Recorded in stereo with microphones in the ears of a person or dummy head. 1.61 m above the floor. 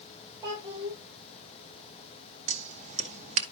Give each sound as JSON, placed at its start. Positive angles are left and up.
{"t": 0.4, "sound": "a child speaking", "side_deg": -20, "distance_m": 1.6}
{"t": 2.5, "sound": "scissors", "side_deg": -40, "distance_m": 1.0}